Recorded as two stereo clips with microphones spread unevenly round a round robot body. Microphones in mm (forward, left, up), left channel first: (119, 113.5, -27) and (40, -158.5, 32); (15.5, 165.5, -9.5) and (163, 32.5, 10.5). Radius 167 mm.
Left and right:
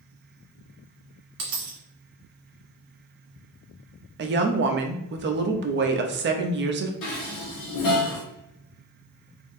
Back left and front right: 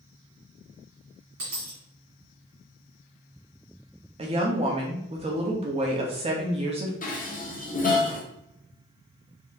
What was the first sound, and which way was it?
A dropped coin, 80° right.